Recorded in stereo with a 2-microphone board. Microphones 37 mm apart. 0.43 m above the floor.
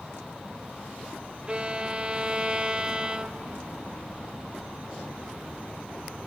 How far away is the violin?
About 0.8 m.